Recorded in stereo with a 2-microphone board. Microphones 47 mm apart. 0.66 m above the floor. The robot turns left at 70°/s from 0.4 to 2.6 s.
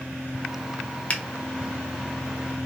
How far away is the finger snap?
About 0.5 m.